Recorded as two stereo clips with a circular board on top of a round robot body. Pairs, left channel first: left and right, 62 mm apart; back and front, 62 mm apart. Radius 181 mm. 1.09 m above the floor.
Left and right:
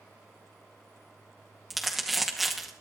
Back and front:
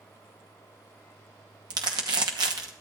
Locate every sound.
1.7 s crumpling: 5° right, 0.9 m